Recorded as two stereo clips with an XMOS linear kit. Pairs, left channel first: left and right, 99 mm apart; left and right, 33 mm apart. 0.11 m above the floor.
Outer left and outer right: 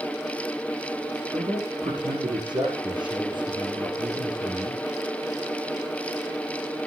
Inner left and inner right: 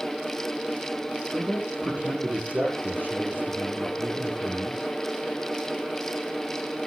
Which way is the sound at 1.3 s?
50° right (ahead or behind).